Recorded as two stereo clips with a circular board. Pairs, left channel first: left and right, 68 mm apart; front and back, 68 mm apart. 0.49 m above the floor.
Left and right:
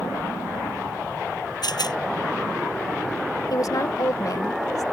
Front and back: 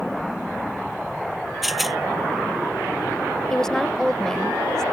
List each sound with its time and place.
1.6 s a rattle: 90° left
3.5 s a woman speaking: 80° left